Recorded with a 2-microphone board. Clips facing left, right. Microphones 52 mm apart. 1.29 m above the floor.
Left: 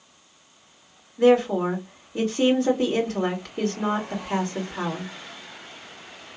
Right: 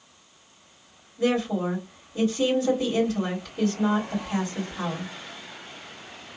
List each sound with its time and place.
1.2 s a woman speaking: 60° left (ahead or behind), 2.5 m